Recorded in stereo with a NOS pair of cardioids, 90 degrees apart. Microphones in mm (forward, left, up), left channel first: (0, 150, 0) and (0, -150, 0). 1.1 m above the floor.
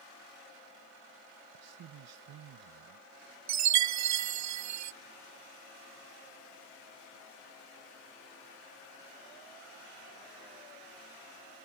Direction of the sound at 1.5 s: 60° right.